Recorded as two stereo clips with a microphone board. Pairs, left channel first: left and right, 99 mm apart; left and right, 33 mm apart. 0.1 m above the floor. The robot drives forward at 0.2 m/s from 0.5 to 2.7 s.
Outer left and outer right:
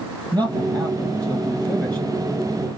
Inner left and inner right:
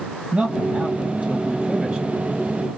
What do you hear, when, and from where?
0.3 s a man speaking: 45° right (ahead or behind), 3 m; by 2.1 s 40° right (ahead or behind), 3 m